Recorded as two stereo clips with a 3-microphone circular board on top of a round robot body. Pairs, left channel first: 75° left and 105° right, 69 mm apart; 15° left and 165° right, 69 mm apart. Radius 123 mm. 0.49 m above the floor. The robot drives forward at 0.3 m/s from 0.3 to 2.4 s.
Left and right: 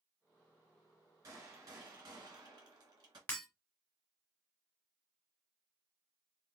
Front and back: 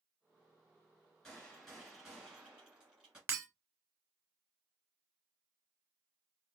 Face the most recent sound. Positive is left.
turn(degrees=140)